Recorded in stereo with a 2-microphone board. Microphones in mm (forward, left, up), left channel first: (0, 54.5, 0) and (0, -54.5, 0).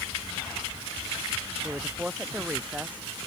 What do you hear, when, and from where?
1.6 s a woman speaking: 10° right (ahead or behind)